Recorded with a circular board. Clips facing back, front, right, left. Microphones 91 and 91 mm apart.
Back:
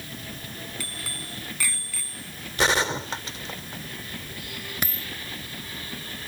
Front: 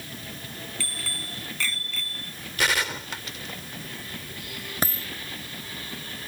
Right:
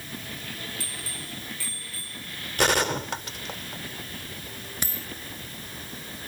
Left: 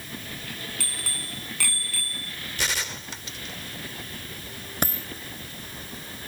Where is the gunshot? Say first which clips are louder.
Back 4 dB, right 10 dB; 120° right.